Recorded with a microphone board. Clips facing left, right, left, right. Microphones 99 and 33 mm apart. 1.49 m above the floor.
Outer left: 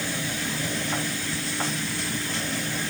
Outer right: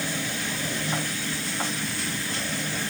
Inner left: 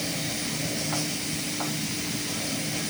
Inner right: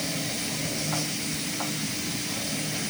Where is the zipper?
I don't hear a zipper.